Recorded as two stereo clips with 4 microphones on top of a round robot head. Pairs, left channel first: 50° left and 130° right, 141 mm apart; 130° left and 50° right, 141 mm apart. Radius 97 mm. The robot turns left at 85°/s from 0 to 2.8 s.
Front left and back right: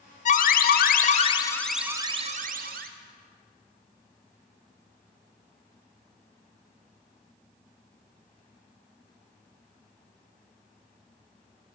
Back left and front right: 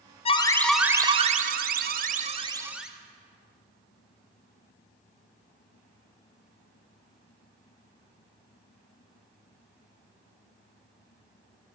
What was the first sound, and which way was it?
An alarm, 85° left.